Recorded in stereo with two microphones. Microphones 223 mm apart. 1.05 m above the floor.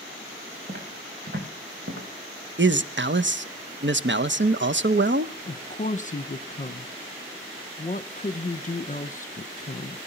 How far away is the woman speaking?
About 0.9 m.